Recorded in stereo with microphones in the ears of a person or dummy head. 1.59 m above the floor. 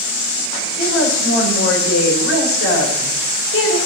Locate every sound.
0.8 s a woman speaking: 85° left, 6.5 m